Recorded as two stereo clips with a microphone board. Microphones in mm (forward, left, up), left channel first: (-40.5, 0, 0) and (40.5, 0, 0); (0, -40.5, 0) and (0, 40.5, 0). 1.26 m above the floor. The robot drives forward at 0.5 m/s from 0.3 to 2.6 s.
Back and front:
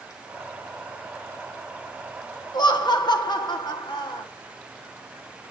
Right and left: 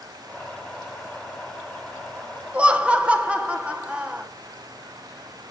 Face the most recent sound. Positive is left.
turn(degrees=165)